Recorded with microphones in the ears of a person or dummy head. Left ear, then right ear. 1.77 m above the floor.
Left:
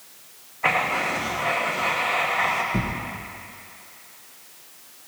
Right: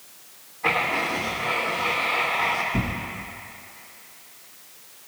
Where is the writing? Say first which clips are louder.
Left 1 dB; 45° left (ahead or behind), 1.4 m.